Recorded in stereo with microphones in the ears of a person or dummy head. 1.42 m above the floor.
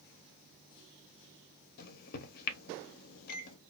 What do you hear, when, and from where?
1.8 s a microwave: 55° left (ahead or behind), 0.7 m